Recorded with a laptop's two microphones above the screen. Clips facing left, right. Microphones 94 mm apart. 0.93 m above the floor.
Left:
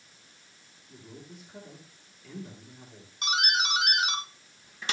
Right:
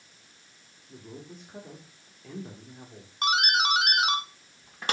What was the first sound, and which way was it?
A man speaking, 40° right (ahead or behind).